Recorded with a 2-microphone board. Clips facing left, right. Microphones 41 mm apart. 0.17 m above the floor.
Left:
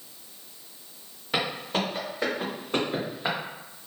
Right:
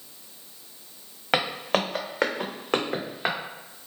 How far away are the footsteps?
About 1.1 m.